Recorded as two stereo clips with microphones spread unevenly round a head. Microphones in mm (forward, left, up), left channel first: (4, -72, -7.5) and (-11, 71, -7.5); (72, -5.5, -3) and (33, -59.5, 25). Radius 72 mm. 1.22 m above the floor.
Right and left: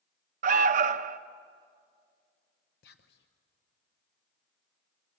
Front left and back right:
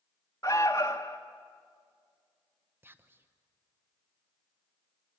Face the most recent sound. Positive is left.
turn(degrees=-60)